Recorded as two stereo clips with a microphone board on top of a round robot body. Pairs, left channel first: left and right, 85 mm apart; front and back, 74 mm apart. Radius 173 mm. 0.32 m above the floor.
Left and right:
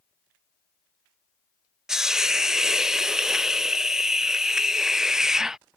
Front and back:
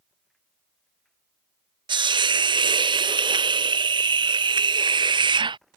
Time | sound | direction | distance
1.9 | a hiss | 175° right | ?